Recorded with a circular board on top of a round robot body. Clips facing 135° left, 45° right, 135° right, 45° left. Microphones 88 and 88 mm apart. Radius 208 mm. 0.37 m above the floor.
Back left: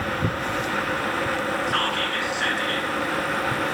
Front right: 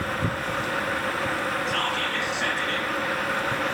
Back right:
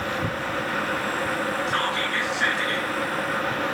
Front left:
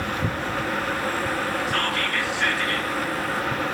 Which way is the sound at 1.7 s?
160° left.